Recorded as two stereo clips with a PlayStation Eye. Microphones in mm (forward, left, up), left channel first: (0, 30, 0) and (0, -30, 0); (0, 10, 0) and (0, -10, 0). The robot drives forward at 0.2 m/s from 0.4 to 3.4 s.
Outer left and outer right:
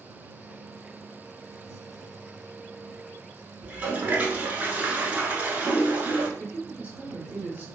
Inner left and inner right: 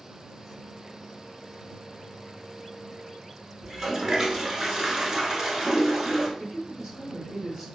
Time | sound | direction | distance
3.6 | a toilet flushing | 25° right (ahead or behind) | 0.7 m
6.4 | a woman speaking | 30° right (ahead or behind) | 0.9 m